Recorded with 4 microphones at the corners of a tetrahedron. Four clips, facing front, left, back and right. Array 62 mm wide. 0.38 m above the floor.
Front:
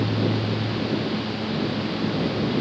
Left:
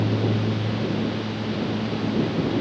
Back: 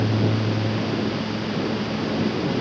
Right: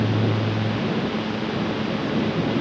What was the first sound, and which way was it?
Only background noise.